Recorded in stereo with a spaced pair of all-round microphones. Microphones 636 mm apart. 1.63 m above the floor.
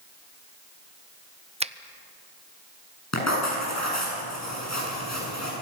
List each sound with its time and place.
1.6 s a finger snap: 10° right (ahead or behind), 0.6 m
3.1 s writing: 25° left (ahead or behind), 7.5 m